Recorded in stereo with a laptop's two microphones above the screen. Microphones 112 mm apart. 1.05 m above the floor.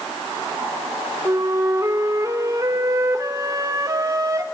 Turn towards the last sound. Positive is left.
turn(degrees=-30)  # may be behind; listen again after turning